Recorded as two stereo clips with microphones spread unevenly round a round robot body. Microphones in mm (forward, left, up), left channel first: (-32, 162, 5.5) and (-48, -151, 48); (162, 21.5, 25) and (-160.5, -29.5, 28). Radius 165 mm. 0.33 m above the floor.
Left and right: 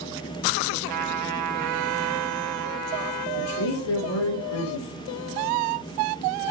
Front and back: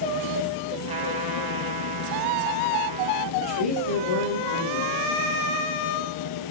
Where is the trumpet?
100° right, 3 m.